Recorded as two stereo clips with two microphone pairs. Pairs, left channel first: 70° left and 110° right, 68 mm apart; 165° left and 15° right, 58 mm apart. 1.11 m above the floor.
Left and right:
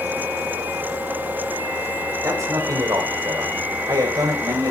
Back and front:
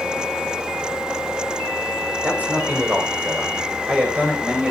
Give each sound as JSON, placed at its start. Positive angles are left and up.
{"t": 2.2, "sound": "a man speaking", "azimuth_deg": -75, "distance_m": 3.5}